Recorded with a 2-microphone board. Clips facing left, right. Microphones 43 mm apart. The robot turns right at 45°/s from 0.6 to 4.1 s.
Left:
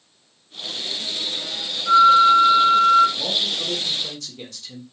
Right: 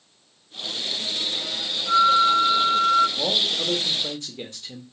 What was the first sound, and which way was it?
A flute, 40° left.